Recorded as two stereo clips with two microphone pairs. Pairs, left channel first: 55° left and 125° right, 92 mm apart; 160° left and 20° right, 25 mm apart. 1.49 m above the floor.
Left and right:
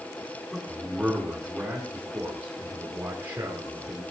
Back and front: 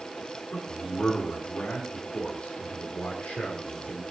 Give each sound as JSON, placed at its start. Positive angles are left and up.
{"t": 0.5, "sound": "a man speaking", "azimuth_deg": 145, "distance_m": 5.0}